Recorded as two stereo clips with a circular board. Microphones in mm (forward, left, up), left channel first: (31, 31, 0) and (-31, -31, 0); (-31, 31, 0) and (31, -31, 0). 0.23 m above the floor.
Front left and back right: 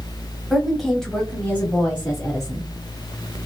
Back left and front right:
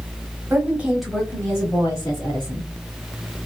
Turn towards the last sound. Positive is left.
turn(degrees=115)